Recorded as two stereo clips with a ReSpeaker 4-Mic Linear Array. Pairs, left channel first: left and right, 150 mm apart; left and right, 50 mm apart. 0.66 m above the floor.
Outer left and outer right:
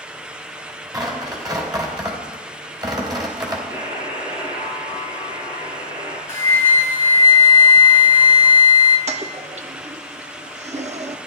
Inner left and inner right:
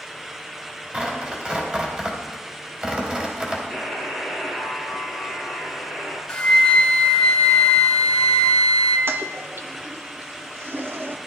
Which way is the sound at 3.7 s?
25° right (ahead or behind).